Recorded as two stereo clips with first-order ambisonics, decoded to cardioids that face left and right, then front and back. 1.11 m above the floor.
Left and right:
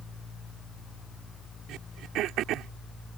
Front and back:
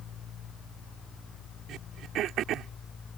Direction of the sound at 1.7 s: 135° right.